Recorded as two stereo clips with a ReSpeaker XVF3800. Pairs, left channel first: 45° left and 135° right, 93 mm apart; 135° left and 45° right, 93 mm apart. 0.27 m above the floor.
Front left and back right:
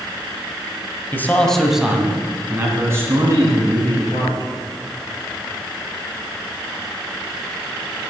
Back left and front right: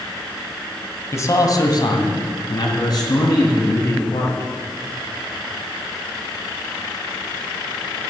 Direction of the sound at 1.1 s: 95° left.